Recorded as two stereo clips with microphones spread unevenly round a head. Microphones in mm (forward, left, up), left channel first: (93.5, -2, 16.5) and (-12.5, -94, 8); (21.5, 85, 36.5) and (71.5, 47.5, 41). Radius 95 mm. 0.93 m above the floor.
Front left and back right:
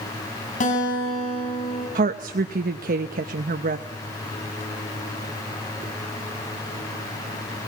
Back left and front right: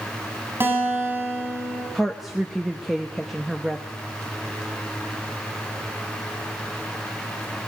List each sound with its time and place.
0.6 s a guitar: 15° left, 8.5 m
1.9 s a woman speaking: 125° right, 0.7 m